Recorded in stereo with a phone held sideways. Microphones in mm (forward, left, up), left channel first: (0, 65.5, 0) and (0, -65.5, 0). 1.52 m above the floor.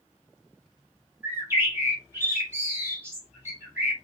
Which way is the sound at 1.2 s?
20° right (ahead or behind).